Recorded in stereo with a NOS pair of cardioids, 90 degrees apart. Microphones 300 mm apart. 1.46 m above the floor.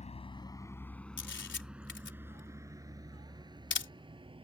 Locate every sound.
0.0 s a vehicle: 25° left; by 4.5 s 15° right
1.2 s a camera shutter: 40° left